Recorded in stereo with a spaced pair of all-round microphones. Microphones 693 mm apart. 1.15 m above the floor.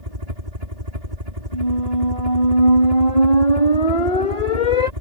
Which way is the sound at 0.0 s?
65° right (ahead or behind).